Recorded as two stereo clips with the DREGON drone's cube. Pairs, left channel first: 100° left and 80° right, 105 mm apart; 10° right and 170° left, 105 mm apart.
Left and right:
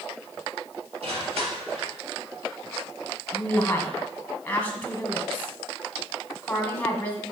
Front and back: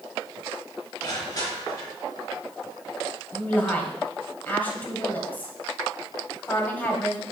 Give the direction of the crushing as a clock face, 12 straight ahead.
2 o'clock.